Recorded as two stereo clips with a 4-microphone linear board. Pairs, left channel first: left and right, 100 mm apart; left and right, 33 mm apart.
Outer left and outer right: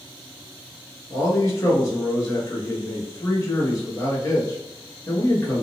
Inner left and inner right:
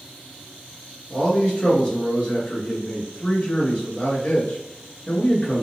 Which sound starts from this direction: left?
A man speaking, at 1.1 s.